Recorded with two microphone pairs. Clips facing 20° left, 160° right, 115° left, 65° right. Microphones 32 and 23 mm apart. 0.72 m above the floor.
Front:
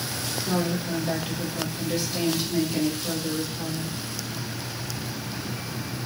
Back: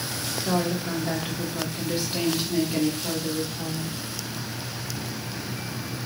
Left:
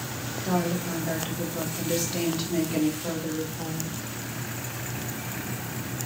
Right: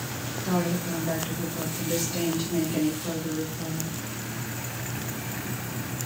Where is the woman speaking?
175° right, 1.9 m; by 4.0 s 125° left, 2 m.